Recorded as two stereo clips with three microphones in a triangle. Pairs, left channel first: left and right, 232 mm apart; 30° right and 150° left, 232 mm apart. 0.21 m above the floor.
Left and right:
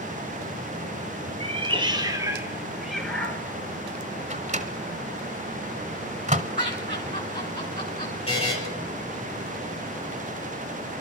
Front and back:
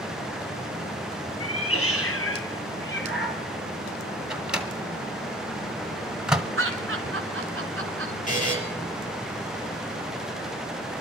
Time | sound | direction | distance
1.4 | a cat meowing | 25° right | 1.9 m
4.3 | a microwave | 125° right | 1.0 m
6.6 | laughter | 140° left | 2.5 m
8.3 | a buzzer | 25° left | 6 m